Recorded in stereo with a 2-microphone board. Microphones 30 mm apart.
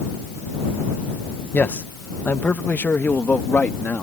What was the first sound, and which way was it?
A man speaking, 55° left (ahead or behind).